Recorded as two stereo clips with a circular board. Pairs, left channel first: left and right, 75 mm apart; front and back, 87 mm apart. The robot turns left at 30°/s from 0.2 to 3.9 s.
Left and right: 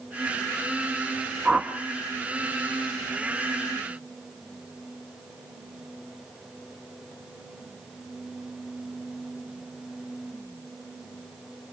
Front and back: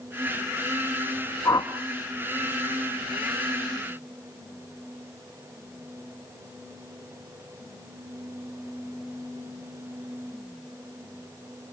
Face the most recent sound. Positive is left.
turn(degrees=-80)